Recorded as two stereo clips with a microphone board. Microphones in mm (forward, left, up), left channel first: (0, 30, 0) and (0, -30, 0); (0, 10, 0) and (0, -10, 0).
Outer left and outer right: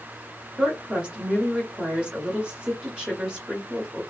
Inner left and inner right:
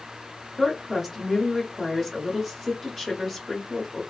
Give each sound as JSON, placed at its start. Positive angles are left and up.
{"t": 0.6, "sound": "a woman speaking", "side_deg": -15, "distance_m": 1.2}